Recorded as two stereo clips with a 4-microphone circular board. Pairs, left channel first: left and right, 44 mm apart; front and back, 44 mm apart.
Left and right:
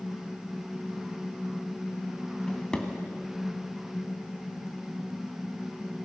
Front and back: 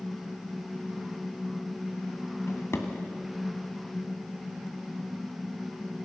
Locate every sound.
2.5 s a drawer: 20° left, 2 m